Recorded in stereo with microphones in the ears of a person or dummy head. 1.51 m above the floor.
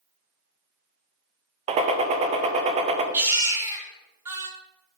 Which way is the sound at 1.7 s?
40° right (ahead or behind).